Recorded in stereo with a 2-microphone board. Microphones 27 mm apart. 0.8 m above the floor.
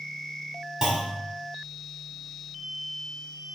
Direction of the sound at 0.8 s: 15° right (ahead or behind).